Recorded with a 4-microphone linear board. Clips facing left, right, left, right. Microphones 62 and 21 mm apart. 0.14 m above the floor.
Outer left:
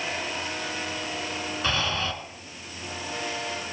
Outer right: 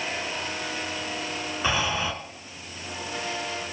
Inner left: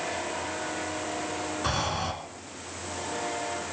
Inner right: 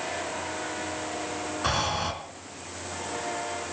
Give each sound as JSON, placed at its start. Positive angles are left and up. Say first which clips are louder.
{"t": 1.6, "sound": "breathing", "louder": "outer right 2 dB, inner right 3 dB", "side_deg": -10, "distance_m": 1.9}